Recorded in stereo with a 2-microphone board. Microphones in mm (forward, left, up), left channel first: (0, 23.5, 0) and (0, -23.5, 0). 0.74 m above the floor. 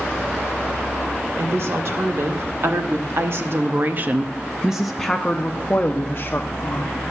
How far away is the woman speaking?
About 1.8 m.